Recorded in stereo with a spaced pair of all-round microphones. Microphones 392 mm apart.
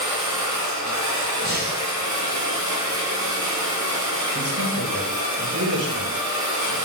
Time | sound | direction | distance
0.0 | a machine running | 50° right (ahead or behind) | 1.5 m
1.4 | breathing | 25° right (ahead or behind) | 0.8 m
4.3 | a man speaking | 70° right (ahead or behind) | 2 m